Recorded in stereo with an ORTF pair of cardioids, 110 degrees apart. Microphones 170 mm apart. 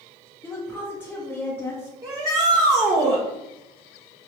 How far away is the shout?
About 0.7 m.